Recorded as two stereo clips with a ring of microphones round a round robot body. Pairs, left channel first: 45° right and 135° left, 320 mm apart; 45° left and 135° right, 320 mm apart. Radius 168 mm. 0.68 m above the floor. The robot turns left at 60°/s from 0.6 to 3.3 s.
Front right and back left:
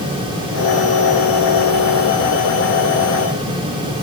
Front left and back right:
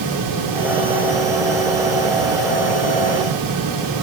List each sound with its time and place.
Only background noise.